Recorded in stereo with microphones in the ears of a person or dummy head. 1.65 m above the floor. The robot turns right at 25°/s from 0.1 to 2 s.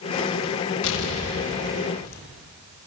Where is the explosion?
70° left (ahead or behind), 2.5 m; by 2.2 s 80° left, 2.5 m.